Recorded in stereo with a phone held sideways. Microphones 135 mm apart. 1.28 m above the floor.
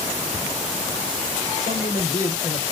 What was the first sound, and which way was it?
A man speaking, 75° left (ahead or behind).